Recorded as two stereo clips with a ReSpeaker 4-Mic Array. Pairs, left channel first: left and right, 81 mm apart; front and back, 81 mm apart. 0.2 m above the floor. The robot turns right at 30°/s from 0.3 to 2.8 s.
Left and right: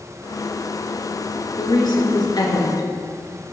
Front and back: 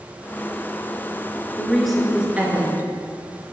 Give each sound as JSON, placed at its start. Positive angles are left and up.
{"t": 1.6, "sound": "a woman speaking", "azimuth_deg": 80, "distance_m": 2.5}